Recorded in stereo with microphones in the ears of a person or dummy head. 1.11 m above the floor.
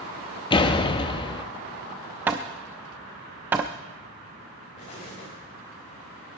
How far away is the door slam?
About 0.9 m.